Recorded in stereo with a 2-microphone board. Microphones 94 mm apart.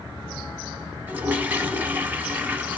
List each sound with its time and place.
1.1 s a toilet flushing: 20° right (ahead or behind), 0.7 m